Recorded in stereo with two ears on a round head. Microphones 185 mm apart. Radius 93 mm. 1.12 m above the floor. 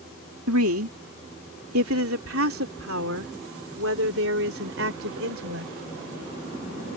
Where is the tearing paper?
No tearing paper in this recording.